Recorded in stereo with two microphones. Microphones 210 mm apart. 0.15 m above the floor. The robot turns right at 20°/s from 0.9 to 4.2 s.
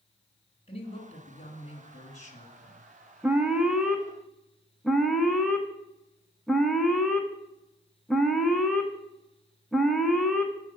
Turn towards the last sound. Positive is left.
turn(degrees=0)  # may be behind; listen again after turning